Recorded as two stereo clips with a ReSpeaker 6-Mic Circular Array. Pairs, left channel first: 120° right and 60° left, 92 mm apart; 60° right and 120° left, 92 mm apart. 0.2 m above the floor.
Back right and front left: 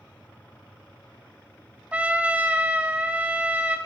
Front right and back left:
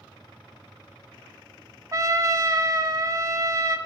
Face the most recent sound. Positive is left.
turn(degrees=125)